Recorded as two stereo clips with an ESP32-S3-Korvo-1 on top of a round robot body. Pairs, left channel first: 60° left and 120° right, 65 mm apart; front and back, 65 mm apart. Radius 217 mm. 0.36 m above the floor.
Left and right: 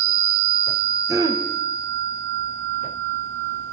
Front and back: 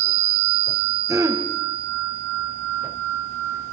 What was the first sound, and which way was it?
Throat clearing, 145° right.